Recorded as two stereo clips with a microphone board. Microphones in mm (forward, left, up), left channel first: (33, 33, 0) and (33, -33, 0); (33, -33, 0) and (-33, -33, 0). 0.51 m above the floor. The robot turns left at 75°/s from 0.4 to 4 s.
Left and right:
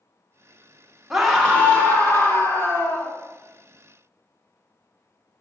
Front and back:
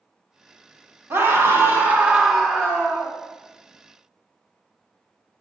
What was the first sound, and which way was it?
A scream, 175° right.